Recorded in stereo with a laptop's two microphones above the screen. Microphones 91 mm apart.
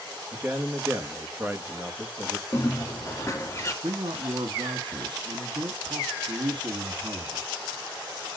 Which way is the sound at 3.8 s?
60° right (ahead or behind).